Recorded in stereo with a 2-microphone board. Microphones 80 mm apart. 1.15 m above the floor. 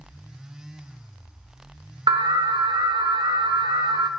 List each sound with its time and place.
2.1 s an alarm: 65° right (ahead or behind), 0.6 m